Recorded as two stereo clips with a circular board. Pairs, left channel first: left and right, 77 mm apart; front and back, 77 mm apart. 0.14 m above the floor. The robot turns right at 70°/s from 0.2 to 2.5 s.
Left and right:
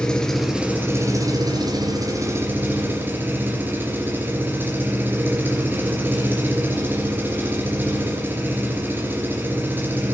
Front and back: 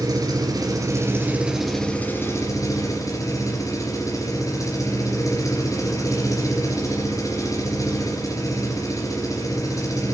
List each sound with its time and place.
0.0 s an engine running: 165° left, 2.5 m; by 10.2 s 30° right, 2.5 m